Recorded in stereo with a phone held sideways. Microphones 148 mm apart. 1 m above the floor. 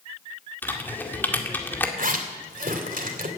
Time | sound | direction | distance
0.6 | typing on a keyboard | 15° left (ahead or behind) | 2.0 m
2.0 | a zipper | 65° right (ahead or behind) | 2.5 m